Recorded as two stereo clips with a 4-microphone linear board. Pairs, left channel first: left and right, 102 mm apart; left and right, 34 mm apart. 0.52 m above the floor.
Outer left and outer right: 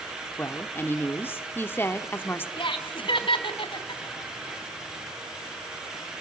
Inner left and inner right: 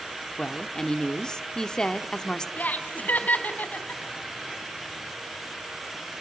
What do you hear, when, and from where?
0.4 s a woman speaking: 20° left (ahead or behind), 1.4 m
2.6 s laughter: 55° left (ahead or behind), 3.5 m